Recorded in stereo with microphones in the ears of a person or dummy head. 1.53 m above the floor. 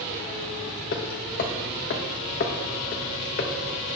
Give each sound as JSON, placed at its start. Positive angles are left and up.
{"t": 0.9, "sound": "hammering", "side_deg": 45, "distance_m": 0.9}